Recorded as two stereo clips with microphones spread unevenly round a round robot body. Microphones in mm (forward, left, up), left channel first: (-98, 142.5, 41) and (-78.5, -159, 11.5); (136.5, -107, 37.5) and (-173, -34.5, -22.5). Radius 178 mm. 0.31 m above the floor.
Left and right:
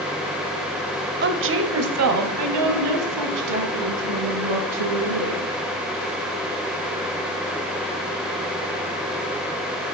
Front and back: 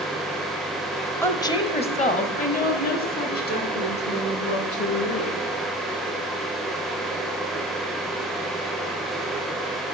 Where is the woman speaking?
105° right, 1.0 m; by 5.4 s 75° right, 4 m.